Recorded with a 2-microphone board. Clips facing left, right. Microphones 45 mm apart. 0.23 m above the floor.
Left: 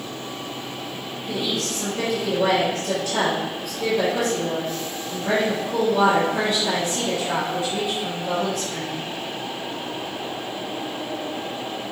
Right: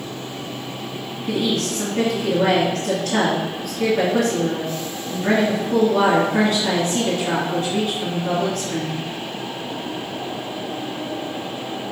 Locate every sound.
1.3 s a woman speaking: 55° right (ahead or behind), 2.5 m